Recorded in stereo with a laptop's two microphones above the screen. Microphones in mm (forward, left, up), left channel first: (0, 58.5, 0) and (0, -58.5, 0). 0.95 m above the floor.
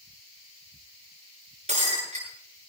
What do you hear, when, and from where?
1.7 s breaking glass: 80° right, 7 m